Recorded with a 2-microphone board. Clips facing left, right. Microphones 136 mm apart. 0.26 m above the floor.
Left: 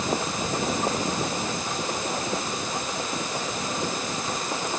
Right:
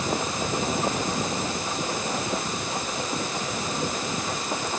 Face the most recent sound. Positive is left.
No sound to turn to.